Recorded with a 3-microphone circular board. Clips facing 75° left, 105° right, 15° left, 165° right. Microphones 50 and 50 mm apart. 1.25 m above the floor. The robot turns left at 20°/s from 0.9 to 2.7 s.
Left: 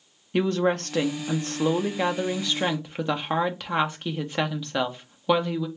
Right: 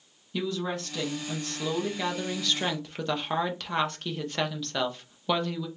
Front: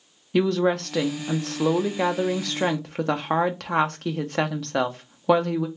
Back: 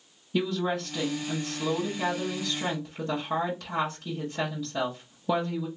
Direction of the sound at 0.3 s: 35° left.